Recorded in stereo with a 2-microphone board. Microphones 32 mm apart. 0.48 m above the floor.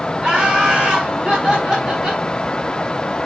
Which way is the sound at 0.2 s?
25° right (ahead or behind).